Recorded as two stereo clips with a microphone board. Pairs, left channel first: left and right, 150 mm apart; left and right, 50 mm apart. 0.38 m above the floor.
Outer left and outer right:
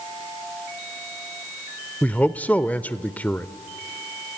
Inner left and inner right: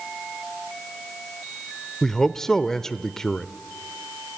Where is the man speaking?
10° left (ahead or behind), 0.8 m.